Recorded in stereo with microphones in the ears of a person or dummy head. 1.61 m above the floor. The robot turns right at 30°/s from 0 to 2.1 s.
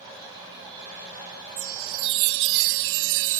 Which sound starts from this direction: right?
A chime, at 1.6 s.